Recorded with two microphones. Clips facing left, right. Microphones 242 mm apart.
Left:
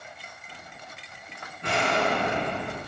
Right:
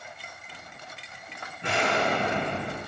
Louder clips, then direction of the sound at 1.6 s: Left 1 dB; 20° right (ahead or behind).